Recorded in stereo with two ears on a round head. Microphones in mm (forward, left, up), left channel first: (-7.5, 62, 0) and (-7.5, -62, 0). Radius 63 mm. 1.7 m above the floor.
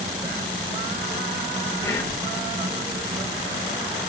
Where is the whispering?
25° left (ahead or behind), 0.9 m.